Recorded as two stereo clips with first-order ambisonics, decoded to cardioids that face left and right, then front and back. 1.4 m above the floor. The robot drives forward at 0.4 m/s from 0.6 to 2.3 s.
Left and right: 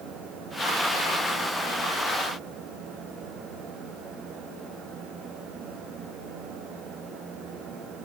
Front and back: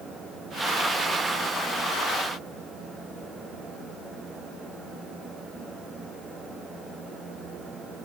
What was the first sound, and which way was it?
Only background noise.